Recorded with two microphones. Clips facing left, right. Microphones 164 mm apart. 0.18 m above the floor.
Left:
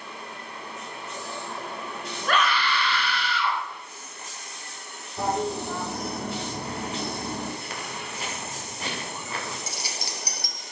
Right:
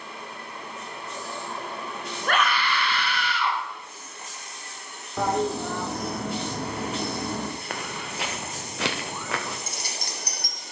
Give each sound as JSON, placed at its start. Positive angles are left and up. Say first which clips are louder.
{"t": 2.3, "sound": "a scream", "louder": "even", "side_deg": -55, "distance_m": 2.5}
{"t": 5.2, "sound": "a toilet flushing", "louder": "right 2 dB", "side_deg": -80, "distance_m": 3.5}
{"t": 7.7, "sound": "footsteps", "louder": "right 2 dB", "side_deg": -60, "distance_m": 2.5}
{"t": 9.7, "sound": "keys jangling", "louder": "even", "side_deg": -55, "distance_m": 2.5}